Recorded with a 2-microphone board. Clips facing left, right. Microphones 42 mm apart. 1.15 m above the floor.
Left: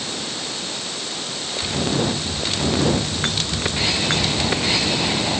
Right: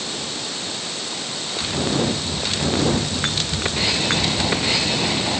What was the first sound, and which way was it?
Only background noise.